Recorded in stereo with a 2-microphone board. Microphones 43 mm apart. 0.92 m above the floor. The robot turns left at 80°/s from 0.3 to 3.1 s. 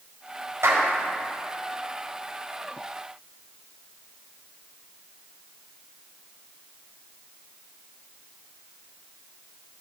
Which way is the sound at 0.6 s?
80° right.